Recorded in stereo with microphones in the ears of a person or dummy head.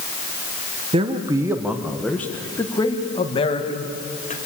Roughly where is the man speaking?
Right.